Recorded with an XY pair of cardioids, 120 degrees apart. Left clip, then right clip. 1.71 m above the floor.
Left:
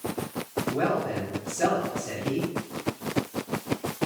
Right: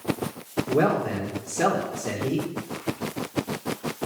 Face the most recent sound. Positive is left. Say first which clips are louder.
# right 4 dB
turn(degrees=-65)